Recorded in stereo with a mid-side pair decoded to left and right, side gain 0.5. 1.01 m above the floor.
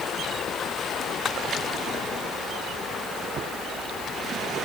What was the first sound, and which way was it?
Only background noise.